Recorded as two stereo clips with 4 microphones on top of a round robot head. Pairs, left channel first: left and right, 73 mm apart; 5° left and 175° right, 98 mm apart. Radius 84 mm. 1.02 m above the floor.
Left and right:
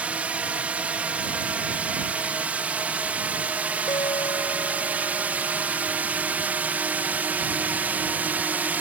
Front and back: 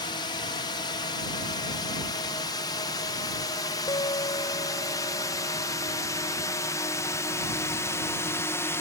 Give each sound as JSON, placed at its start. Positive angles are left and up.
{"t": 0.0, "sound": "a drone", "azimuth_deg": -20}
{"t": 3.9, "sound": "a guitar", "azimuth_deg": 55}